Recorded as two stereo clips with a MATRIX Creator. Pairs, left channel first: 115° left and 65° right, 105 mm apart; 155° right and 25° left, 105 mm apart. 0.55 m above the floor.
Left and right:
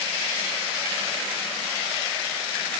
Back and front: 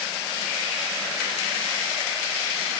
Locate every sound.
Only background noise.